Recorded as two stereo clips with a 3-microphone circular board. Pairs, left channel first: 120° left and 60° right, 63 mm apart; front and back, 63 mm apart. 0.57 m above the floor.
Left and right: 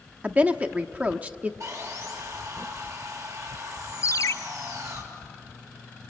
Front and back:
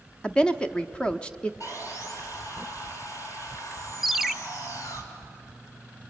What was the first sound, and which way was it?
A woman speaking, 45° right.